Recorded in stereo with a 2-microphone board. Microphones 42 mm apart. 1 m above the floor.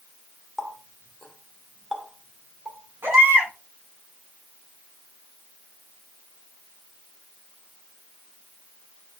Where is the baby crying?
65° right (ahead or behind), 5 m.